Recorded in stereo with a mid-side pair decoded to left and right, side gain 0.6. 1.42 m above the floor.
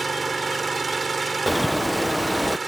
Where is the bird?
5° left.